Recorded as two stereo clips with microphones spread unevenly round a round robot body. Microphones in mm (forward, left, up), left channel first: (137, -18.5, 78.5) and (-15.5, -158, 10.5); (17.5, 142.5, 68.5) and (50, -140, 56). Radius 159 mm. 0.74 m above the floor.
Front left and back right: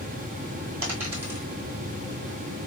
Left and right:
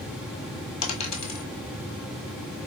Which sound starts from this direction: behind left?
A dropped coin, at 0.8 s.